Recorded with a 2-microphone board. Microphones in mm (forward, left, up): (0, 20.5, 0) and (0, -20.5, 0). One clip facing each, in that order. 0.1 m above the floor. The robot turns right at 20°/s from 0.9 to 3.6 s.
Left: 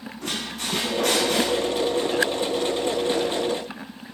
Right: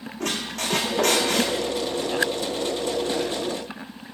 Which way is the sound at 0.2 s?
75° right (ahead or behind).